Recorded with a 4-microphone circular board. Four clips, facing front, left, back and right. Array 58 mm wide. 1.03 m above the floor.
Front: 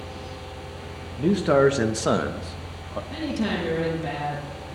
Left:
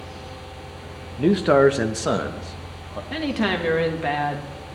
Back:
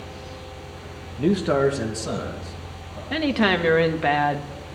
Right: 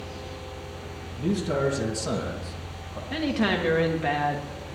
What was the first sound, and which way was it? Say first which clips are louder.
A man speaking: left 10 dB, front 1 dB; 110° left.